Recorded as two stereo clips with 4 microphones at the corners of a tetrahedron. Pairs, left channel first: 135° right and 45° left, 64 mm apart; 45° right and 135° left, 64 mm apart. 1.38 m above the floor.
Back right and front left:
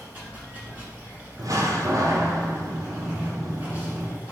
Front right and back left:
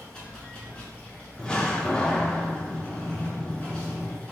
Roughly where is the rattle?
No rattle in this recording.